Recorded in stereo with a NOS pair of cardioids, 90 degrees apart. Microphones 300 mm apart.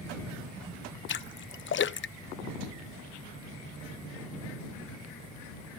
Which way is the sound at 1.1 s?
40° left.